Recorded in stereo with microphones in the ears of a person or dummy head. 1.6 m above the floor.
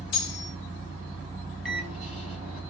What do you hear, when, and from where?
0.1 s cutlery clinking: 35° left (ahead or behind), 0.8 m
1.6 s a microwave: 5° right (ahead or behind), 1.1 m